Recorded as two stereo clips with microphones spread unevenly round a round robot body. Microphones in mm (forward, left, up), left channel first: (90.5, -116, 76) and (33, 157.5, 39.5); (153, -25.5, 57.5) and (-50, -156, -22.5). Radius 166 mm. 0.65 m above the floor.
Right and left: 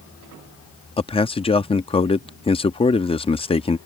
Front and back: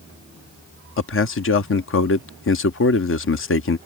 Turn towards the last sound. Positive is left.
turn(degrees=-5)